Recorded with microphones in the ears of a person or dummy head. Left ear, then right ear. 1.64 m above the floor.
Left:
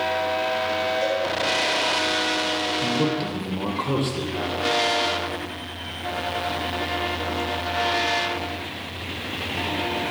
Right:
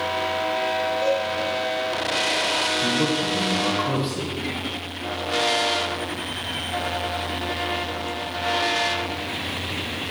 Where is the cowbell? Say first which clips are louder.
Right 1 dB; 60° left (ahead or behind), 3 m.